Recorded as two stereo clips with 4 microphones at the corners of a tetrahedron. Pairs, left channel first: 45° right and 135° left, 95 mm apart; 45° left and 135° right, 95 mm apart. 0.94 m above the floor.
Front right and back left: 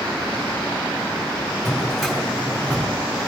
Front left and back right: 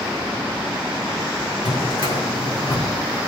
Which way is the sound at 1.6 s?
40° left.